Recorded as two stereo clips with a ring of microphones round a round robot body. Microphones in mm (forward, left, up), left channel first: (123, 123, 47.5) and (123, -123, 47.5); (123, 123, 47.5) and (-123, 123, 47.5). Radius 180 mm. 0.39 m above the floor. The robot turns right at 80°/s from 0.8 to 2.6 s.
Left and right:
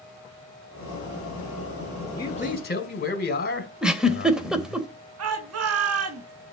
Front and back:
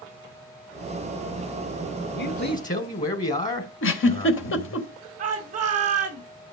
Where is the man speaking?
15° left, 2 m; by 4.8 s 50° left, 2 m.